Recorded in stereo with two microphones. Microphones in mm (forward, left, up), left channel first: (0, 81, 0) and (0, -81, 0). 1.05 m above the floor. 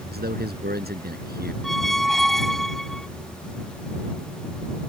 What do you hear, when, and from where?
0.1 s a man speaking: 85° right
1.6 s a squeak: centre (ahead or behind)